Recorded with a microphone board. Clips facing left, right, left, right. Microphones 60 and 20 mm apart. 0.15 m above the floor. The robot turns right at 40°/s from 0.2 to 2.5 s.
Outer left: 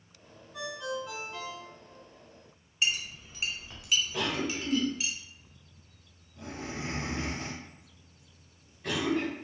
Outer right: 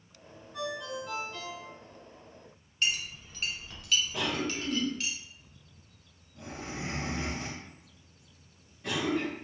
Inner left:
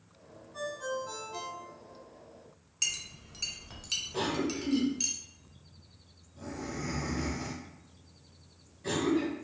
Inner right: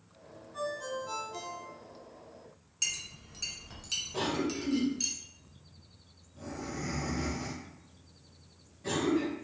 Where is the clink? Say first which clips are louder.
Outer left 1 dB, inner left 1 dB; 15° left (ahead or behind), 0.7 m.